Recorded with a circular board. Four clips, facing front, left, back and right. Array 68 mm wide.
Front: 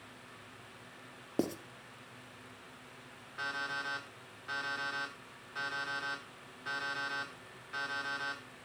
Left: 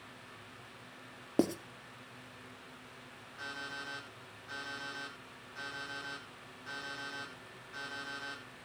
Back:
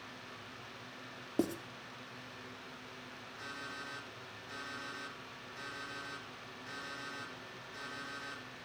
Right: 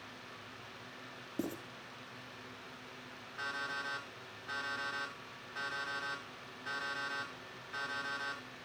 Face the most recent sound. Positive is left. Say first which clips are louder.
# right 4 dB, front 9 dB
turn(degrees=-25)